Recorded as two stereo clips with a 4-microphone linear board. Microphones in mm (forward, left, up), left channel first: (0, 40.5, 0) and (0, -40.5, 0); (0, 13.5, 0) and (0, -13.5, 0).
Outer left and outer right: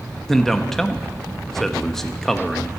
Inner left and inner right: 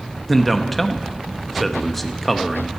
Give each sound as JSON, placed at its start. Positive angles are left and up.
{"t": 0.3, "sound": "a man speaking", "side_deg": 5, "distance_m": 0.8}